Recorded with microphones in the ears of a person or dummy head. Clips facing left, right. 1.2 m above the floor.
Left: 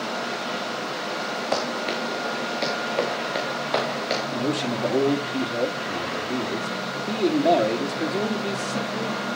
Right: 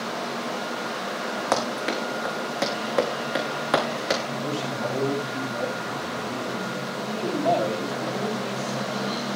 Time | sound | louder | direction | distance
1.5 | running footsteps | right 1 dB | 60° right (ahead or behind) | 4.5 m
4.3 | a man speaking | left 4 dB | 25° left (ahead or behind) | 3 m